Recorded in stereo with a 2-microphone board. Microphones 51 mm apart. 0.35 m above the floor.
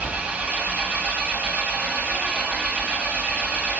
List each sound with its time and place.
0.0 s an engine running: 25° right (ahead or behind), 1.9 m